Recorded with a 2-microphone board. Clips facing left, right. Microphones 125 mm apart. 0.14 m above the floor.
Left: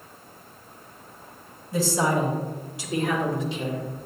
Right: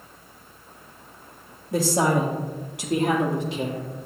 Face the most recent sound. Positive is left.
turn(degrees=-55)  # may be behind; listen again after turning